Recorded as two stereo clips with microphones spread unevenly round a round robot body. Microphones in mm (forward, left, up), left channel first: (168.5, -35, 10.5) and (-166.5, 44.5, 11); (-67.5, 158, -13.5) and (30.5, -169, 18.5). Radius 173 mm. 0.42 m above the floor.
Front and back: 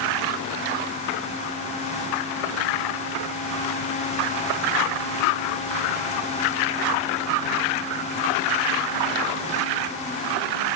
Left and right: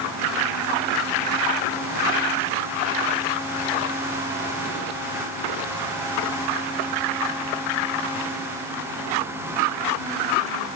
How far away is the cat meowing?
I don't hear a cat meowing.